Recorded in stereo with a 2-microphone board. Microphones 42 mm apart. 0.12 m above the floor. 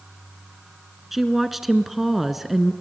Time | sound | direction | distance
1.1 | a woman speaking | 5° right (ahead or behind) | 1.2 m